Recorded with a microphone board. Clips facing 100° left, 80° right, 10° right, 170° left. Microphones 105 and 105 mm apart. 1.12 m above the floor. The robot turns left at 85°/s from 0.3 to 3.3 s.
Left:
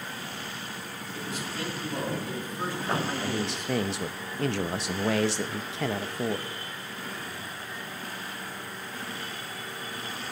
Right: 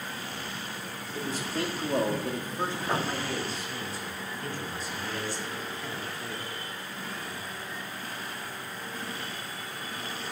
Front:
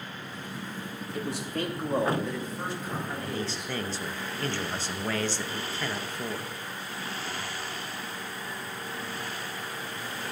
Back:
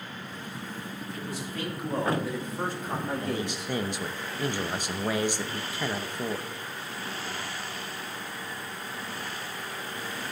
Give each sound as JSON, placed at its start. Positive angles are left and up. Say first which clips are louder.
{"t": 1.1, "sound": "a man speaking", "louder": "right 4 dB, front 5 dB", "azimuth_deg": -10, "distance_m": 2.5}
{"t": 3.2, "sound": "a man speaking", "louder": "left 3 dB, back 2 dB", "azimuth_deg": 105, "distance_m": 0.8}